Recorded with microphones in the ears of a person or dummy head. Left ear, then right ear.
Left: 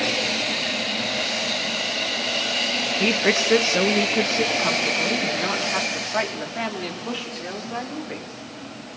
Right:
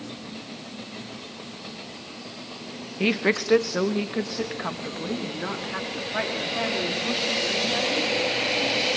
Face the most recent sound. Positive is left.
turn(degrees=15)  # may be behind; listen again after turning